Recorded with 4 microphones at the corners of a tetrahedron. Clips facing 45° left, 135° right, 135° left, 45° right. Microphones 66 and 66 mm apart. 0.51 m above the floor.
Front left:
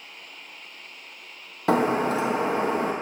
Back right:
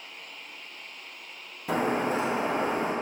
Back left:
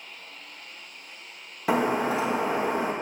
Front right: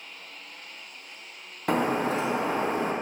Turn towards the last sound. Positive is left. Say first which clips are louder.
# front left 5 dB, back left 1 dB
turn(degrees=50)